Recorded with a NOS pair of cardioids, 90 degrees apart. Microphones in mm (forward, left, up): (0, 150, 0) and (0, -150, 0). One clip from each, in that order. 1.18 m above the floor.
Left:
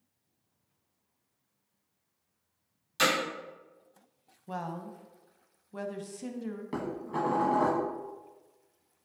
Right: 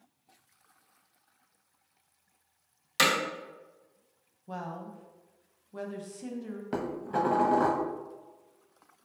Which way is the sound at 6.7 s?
25° right.